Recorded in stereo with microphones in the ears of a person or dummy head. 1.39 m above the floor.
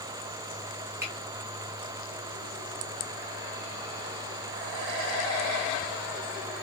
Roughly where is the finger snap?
Centre.